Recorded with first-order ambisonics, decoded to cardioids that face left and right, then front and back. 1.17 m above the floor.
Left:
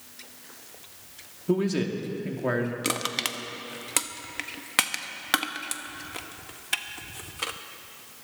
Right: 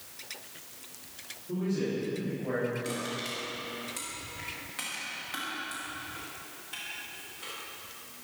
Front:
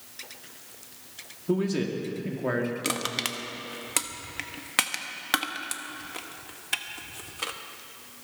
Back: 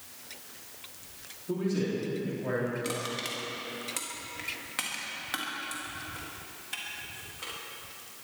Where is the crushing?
55° left, 1.0 m.